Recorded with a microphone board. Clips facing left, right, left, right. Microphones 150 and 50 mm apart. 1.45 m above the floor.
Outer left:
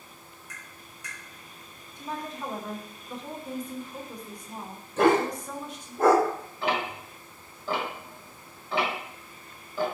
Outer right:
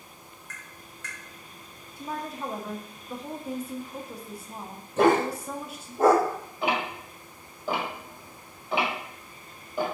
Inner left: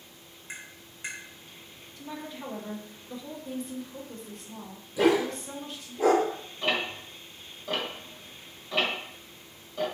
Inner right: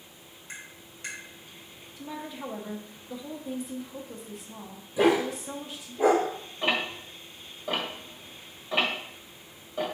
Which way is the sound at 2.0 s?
5° right (ahead or behind).